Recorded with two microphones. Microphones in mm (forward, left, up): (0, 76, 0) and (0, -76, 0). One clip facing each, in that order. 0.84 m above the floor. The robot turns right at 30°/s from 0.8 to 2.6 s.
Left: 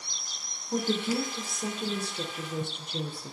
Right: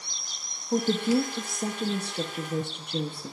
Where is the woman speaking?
135° right, 0.9 m; by 3.3 s 85° right, 0.9 m.